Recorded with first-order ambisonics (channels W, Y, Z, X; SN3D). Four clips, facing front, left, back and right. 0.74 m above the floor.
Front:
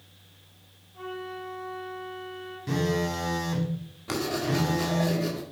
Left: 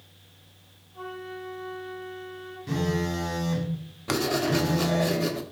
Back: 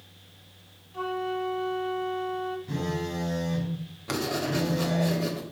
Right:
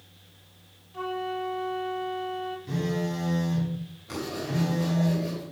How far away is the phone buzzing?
About 2 m.